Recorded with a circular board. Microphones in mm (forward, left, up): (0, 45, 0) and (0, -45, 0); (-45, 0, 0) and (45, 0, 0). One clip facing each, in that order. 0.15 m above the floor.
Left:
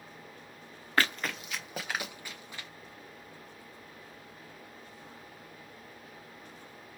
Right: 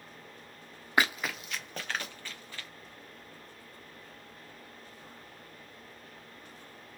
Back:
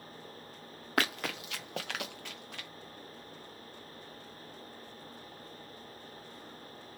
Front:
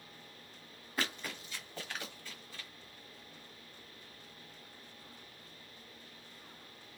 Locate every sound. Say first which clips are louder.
1.0 s running footsteps: right 1 dB, back 6 dB; 165° right, 0.6 m; by 2.7 s 160° left, 1.3 m